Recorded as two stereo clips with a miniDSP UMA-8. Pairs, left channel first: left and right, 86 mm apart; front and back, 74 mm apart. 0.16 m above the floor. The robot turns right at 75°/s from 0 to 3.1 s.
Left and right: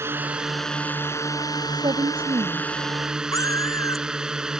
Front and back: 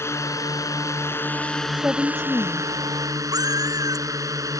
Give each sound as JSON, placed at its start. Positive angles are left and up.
{"t": 0.0, "sound": "a drone", "azimuth_deg": -40}
{"t": 1.7, "sound": "a woman speaking", "azimuth_deg": -115}
{"t": 3.3, "sound": "a cat meowing", "azimuth_deg": 145}